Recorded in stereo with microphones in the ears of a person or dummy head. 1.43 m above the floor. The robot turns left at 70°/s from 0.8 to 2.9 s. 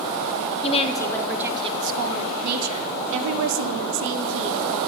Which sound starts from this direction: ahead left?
A woman speaking, at 0.6 s.